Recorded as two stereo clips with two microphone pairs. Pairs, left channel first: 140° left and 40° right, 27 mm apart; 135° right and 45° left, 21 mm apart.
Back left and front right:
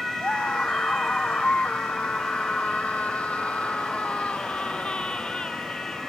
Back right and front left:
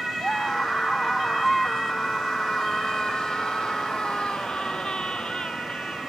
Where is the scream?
165° left; by 6.1 s 160° right.